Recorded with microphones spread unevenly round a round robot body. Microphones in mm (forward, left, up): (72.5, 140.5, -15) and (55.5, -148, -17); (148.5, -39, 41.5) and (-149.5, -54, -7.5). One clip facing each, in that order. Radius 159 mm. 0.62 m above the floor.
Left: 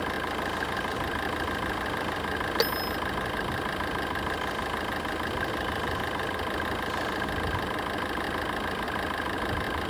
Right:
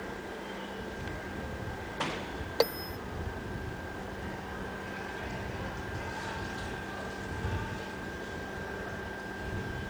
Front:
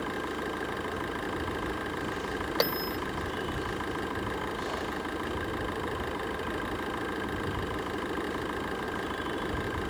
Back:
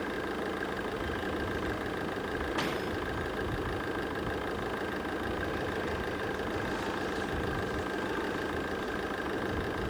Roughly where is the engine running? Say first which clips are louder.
Left 8 dB, even; left.